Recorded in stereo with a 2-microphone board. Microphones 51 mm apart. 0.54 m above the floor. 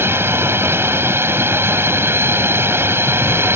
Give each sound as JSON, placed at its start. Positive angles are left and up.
{"t": 0.0, "sound": "a drone", "side_deg": -55}